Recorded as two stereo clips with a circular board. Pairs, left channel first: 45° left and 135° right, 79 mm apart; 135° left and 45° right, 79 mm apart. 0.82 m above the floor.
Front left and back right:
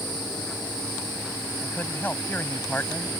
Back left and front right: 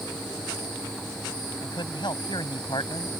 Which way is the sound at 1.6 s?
110° left.